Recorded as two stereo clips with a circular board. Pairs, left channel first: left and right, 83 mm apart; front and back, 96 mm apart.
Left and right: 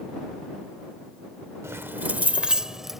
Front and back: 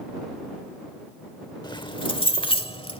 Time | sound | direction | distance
1.6 | keys jangling | 35° right | ?